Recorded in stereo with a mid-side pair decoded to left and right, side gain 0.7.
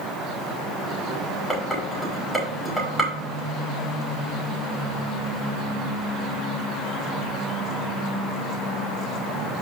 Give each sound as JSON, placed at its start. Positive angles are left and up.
{"t": 1.5, "sound": "dishes clattering", "azimuth_deg": 0, "distance_m": 5.0}